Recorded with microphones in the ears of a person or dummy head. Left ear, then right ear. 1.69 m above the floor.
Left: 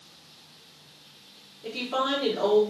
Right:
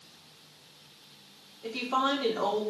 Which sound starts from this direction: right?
A woman speaking, at 1.6 s.